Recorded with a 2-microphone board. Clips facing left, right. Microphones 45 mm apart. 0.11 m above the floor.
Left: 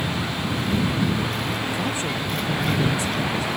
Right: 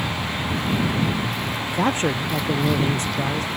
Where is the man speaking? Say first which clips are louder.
Right 4 dB; 55° right (ahead or behind).